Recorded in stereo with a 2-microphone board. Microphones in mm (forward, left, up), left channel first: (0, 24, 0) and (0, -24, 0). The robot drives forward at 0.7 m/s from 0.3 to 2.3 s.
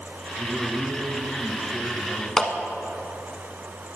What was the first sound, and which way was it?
A man speaking, 15° left (ahead or behind).